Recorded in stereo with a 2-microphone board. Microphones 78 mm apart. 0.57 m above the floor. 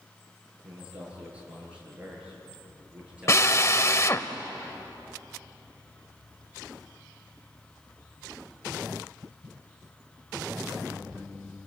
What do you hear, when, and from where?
0.6 s a man speaking: 15° right (ahead or behind), 9.5 m
3.3 s a drill: 40° left (ahead or behind), 0.8 m